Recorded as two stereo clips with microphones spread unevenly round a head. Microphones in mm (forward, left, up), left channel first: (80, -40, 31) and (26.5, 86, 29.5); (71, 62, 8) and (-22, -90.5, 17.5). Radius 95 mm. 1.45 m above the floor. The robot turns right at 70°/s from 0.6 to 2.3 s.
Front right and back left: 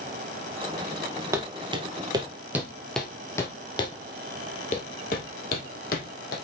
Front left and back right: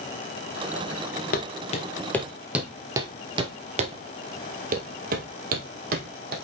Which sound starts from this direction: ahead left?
Footsteps, at 1.3 s.